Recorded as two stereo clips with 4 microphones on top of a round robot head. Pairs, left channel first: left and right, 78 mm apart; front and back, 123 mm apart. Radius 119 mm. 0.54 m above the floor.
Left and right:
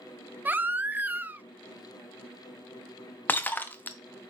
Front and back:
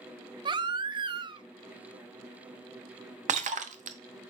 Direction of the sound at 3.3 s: 155° left.